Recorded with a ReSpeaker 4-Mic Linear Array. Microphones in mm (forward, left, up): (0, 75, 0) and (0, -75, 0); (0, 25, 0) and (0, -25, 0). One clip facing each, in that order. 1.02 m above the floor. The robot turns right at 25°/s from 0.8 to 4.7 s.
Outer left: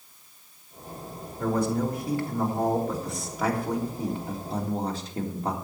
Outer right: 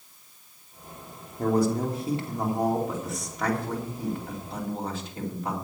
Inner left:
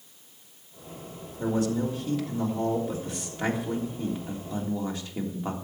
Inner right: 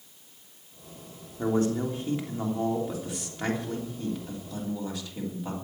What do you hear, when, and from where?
1.4 s a man speaking: 45° right, 3 m; by 5.5 s 40° left, 3 m